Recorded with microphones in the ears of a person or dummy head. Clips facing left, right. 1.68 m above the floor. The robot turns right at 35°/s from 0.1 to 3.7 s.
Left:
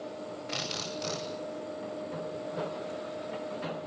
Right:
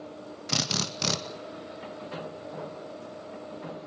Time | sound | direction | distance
0.5 | a drill | 50° right (ahead or behind) | 2 m